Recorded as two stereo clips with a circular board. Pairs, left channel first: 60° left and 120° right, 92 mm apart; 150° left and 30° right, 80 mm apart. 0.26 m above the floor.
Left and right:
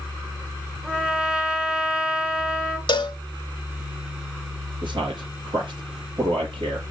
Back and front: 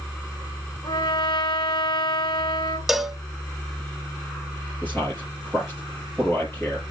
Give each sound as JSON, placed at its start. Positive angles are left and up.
{"t": 0.8, "sound": "a trumpet", "azimuth_deg": 160, "distance_m": 1.2}
{"t": 2.9, "sound": "a cowbell", "azimuth_deg": 55, "distance_m": 0.6}
{"t": 4.8, "sound": "a man speaking", "azimuth_deg": -140, "distance_m": 6.0}